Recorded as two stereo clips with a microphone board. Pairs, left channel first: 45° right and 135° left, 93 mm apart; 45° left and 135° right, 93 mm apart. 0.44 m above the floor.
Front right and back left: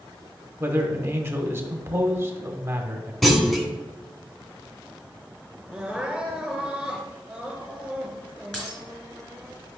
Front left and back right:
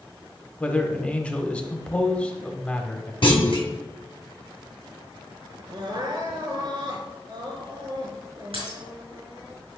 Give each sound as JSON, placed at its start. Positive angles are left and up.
{"t": 0.6, "sound": "a man speaking", "azimuth_deg": 105, "distance_m": 1.1}
{"t": 3.2, "sound": "a clunk", "azimuth_deg": 45, "distance_m": 1.3}
{"t": 5.7, "sound": "crying", "azimuth_deg": -145, "distance_m": 1.9}
{"t": 8.5, "sound": "breaking glass", "azimuth_deg": -125, "distance_m": 4.0}